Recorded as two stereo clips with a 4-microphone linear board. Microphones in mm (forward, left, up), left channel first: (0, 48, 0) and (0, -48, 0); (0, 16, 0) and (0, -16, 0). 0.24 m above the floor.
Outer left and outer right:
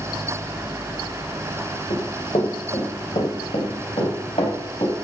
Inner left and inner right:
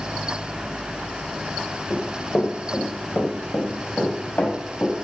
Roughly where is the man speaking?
I don't hear a man speaking.